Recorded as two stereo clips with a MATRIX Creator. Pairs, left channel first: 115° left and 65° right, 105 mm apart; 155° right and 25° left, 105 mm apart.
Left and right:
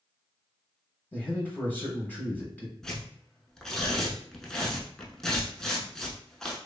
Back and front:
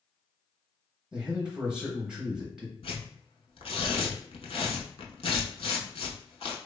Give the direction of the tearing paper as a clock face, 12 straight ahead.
5 o'clock.